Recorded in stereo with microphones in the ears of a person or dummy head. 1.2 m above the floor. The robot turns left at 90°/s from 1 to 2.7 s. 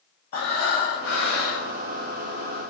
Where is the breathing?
140° left, 0.9 m; by 1.7 s 80° left, 0.9 m.